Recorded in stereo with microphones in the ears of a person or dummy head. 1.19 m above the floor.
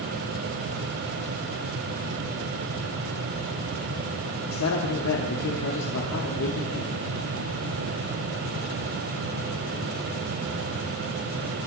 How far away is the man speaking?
About 2.5 m.